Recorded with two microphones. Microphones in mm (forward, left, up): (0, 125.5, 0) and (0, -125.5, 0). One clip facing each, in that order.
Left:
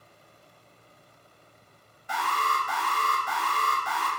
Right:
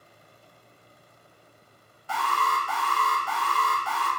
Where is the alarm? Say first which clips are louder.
Right 2 dB; 20° left (ahead or behind), 0.7 m.